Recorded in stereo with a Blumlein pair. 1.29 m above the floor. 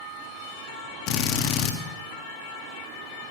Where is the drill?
40° left, 1.5 m.